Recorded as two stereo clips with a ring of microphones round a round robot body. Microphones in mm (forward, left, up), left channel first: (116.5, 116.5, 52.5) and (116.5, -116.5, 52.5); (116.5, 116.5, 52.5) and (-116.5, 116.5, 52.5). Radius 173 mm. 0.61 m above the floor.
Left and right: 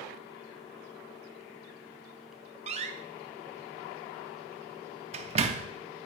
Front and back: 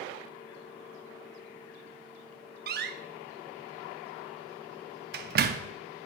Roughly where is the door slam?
Behind right.